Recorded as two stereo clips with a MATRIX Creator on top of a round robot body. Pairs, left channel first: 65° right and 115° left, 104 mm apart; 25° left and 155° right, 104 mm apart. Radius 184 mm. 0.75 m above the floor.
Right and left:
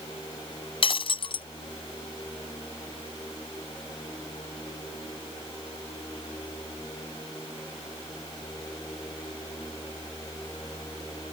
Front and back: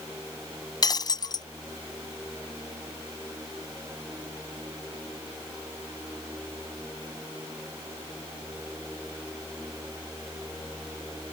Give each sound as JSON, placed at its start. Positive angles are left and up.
{"t": 0.8, "sound": "breaking glass", "azimuth_deg": -30}